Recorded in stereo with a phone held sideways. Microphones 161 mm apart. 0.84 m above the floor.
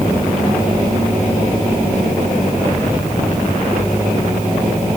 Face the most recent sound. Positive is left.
No sound to turn to.